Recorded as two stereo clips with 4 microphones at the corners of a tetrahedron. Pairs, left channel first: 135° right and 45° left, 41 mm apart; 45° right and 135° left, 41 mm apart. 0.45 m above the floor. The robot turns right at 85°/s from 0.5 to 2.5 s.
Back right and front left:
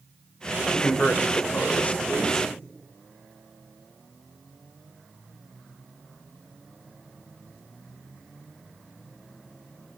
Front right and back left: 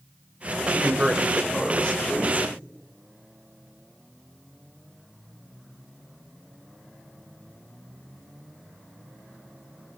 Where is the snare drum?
I don't hear a snare drum.